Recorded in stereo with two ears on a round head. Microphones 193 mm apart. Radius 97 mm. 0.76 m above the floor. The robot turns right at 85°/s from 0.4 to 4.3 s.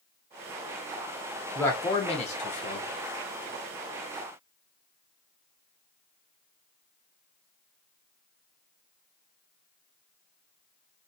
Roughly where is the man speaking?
Ahead.